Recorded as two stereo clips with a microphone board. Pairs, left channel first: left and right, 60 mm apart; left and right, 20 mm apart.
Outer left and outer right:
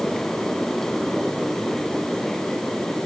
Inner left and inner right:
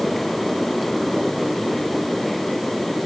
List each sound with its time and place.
Only background noise.